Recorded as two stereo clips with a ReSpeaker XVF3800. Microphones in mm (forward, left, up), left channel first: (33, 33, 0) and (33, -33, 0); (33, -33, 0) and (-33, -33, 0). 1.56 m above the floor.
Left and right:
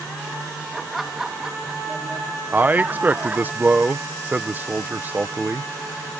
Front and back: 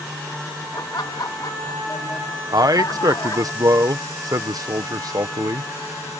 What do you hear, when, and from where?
0.7 s laughter: 5° left; by 3.5 s 25° right
2.5 s a man speaking: 150° right